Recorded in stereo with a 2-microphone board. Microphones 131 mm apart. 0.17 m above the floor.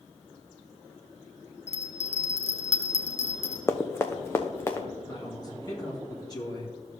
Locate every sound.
1.7 s a bell: 55° left (ahead or behind), 0.8 m
3.7 s running footsteps: 20° left (ahead or behind), 0.8 m
5.1 s a man speaking: 30° left (ahead or behind), 3 m